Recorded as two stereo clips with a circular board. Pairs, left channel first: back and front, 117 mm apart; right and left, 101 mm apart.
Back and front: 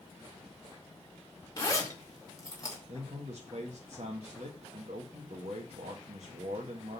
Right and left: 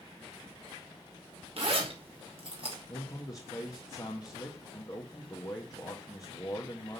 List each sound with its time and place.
1.6 s a zipper: 120° left, 3 m
2.9 s a man speaking: 35° right, 1.8 m